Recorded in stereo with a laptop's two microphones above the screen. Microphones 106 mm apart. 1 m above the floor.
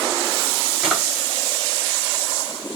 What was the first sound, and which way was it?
A drawer, 5° right (ahead or behind).